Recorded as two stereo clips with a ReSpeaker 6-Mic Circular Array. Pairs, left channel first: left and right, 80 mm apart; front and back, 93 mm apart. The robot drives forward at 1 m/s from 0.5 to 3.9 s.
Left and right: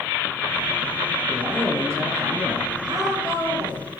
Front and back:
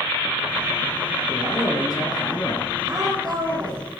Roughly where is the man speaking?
Ahead right.